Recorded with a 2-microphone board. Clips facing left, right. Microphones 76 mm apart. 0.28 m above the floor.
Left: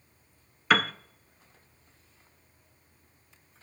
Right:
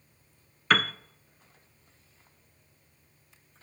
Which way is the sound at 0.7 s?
5° left (ahead or behind).